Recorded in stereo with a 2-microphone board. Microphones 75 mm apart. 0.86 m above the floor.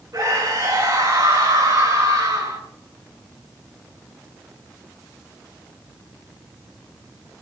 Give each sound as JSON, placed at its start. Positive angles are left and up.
{"t": 0.1, "sound": "a scream", "side_deg": -40, "distance_m": 8.0}